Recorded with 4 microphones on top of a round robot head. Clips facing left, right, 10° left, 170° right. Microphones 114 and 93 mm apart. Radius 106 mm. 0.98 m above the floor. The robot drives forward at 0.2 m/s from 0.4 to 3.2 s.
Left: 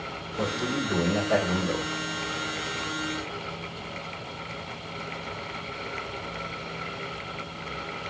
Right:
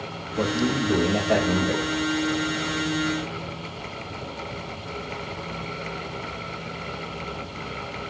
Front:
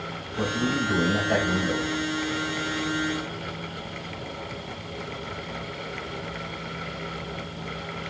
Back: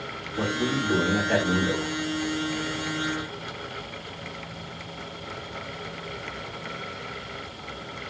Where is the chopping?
I don't hear chopping.